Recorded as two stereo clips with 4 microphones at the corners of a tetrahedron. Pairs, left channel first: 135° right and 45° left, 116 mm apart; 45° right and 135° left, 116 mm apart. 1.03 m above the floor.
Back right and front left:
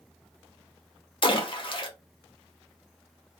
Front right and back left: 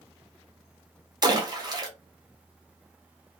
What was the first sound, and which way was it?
A splash, 175° right.